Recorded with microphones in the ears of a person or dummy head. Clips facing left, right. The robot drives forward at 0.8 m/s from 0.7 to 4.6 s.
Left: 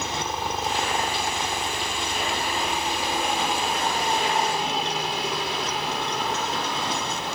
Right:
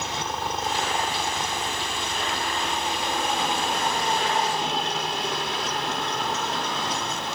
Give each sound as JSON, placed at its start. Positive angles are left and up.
{"t": 0.0, "sound": "a helicopter", "side_deg": 10}